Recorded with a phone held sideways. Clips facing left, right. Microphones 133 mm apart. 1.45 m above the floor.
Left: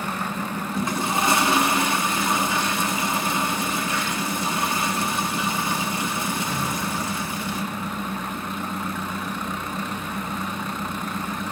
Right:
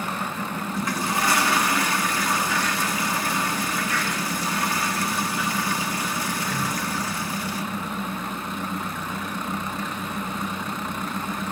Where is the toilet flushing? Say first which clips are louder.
Left 2 dB; 25° left (ahead or behind), 1.6 m.